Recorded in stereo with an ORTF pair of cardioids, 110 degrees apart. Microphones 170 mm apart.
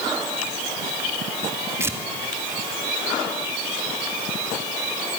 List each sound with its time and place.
1.8 s tearing paper: 15° right, 3 m